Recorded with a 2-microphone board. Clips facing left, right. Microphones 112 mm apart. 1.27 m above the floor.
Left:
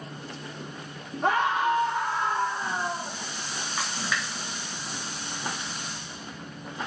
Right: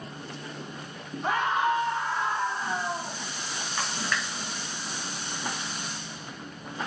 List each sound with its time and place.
1.2 s a scream: 85° left, 3 m
3.8 s a splash: 5° left (ahead or behind), 3 m